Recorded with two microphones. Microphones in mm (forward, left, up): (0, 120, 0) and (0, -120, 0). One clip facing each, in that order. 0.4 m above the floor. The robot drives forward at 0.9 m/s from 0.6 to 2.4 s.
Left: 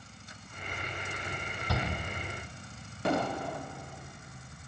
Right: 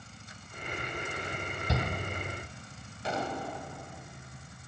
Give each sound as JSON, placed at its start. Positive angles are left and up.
{"t": 1.7, "sound": "a shout", "side_deg": -20, "distance_m": 0.9}
{"t": 3.0, "sound": "an explosion", "side_deg": 65, "distance_m": 0.7}